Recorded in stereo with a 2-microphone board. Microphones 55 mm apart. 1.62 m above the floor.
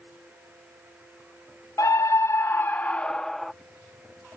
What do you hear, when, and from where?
1.8 s a scream: 80° left; by 3.5 s 5° left (ahead or behind)